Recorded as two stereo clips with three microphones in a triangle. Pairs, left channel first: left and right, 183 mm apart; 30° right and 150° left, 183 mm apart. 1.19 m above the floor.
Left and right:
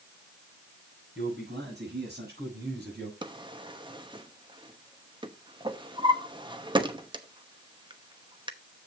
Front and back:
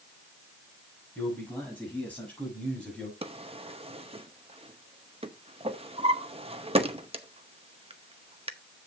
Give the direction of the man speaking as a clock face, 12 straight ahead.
4 o'clock.